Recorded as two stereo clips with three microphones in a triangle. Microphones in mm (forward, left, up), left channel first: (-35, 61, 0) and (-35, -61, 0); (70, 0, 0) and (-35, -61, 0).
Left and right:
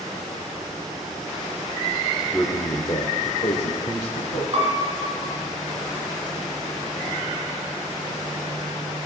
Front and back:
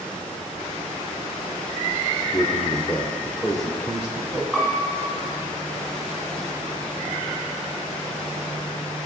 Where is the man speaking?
Straight ahead, 0.9 m; by 4.4 s 125° left, 2 m.